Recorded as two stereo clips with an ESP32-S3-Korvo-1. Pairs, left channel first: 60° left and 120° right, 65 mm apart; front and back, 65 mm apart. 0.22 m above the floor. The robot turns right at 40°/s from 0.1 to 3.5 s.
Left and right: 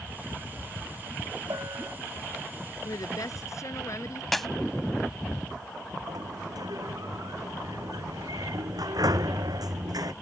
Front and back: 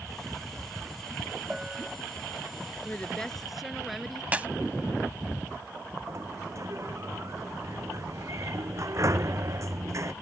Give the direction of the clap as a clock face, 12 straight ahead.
7 o'clock.